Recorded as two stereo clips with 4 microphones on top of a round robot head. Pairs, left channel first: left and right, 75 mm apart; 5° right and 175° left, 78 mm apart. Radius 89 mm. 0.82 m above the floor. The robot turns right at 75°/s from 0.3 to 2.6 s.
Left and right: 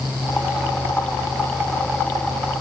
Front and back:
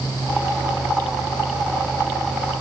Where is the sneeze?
I don't hear a sneeze.